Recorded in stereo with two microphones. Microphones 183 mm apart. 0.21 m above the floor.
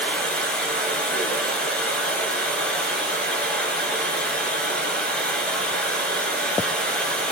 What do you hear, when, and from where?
0.0 s running water: 5° left (ahead or behind), 1.8 m